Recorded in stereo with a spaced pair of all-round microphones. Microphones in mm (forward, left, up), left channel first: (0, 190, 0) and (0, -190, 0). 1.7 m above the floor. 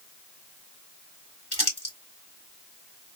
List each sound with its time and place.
1.5 s crumpling: 75° left (ahead or behind), 3 m